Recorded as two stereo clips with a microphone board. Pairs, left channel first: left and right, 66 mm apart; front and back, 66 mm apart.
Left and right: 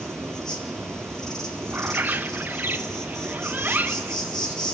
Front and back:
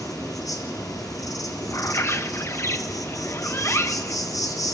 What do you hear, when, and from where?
0.0 s an insect: 10° left, 3.5 m
1.7 s a bird: 35° right, 0.9 m